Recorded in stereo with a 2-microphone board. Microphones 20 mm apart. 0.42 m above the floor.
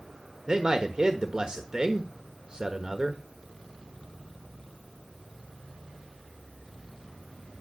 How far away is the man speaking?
About 1.3 m.